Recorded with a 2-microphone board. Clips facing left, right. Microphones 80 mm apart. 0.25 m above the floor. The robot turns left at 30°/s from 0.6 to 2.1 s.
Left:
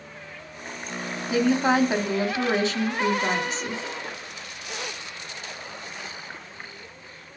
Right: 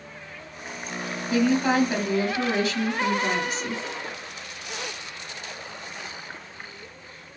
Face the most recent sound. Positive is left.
turn(degrees=30)  # may be behind; listen again after turning